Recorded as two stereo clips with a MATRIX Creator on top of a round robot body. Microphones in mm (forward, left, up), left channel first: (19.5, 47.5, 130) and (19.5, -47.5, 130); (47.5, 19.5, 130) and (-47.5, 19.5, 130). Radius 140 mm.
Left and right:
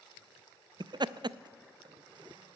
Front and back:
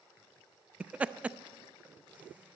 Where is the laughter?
105° right, 0.6 m.